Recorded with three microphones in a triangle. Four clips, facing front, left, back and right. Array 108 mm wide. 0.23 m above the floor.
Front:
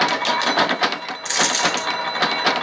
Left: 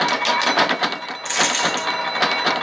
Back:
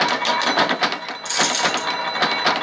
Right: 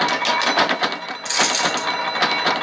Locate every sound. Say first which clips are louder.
1.2 s a dropped coin: even, even; 35° left, 0.7 m